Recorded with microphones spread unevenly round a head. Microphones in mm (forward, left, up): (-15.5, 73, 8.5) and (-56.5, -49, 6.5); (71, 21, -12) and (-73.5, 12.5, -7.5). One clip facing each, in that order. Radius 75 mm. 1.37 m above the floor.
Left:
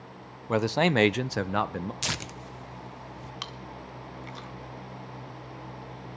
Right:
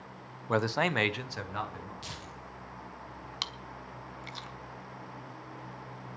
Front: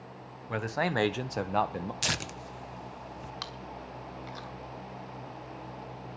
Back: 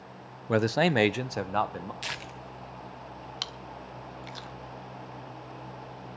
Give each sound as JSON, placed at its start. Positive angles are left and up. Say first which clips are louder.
{"t": 0.5, "sound": "a man speaking", "louder": "left 5 dB, back 7 dB", "azimuth_deg": 150, "distance_m": 0.8}
{"t": 2.0, "sound": "tearing paper", "louder": "left 7 dB, front 3 dB", "azimuth_deg": 40, "distance_m": 0.7}
{"t": 3.4, "sound": "chewing", "louder": "left 3 dB, even", "azimuth_deg": -140, "distance_m": 1.1}